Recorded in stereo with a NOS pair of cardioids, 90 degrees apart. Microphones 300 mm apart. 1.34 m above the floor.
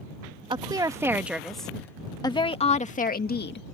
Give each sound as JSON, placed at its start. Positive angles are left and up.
{"t": 0.5, "sound": "a woman speaking", "azimuth_deg": -15}